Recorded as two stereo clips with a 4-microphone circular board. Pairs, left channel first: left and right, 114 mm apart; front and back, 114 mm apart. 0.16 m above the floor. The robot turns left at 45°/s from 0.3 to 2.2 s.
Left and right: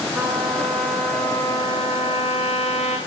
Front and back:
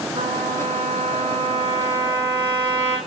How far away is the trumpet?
About 9 m.